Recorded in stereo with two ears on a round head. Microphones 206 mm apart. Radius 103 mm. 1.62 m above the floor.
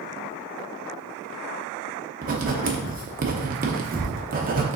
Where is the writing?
40° right (ahead or behind), 0.7 m.